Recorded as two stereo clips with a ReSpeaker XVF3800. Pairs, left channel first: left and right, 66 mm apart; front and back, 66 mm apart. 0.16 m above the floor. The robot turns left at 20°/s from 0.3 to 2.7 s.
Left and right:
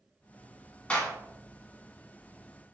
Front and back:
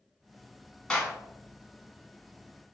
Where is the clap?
55° left, 1.1 m; by 1.1 s 50° left, 1.1 m.